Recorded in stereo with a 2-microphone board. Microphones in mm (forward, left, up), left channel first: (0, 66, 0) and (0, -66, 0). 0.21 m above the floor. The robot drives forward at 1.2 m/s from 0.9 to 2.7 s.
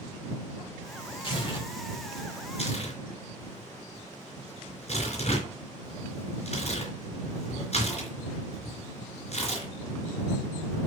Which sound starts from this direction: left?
Tearing paper, at 1.2 s.